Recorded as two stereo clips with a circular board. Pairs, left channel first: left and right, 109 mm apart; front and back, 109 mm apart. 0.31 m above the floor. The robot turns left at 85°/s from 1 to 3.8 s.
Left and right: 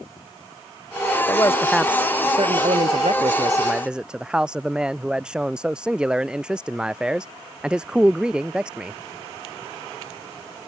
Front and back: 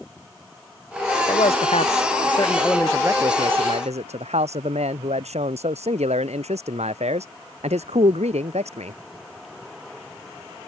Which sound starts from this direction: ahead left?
A man speaking, at 1.3 s.